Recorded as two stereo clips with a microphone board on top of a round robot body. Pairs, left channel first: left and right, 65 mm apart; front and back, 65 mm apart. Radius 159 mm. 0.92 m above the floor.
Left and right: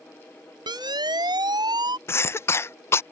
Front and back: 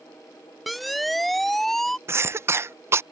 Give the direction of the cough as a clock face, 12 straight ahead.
8 o'clock.